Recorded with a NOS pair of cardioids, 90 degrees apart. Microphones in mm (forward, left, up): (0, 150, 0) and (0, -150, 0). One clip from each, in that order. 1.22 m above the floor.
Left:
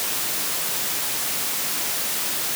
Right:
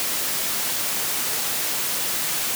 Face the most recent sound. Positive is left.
No sound to turn to.